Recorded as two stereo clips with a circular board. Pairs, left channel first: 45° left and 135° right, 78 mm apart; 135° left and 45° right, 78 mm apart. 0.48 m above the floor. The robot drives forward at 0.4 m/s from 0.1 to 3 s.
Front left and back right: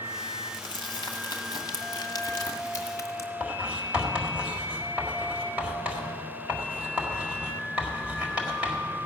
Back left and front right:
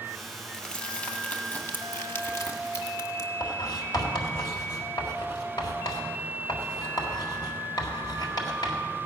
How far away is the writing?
About 1.8 m.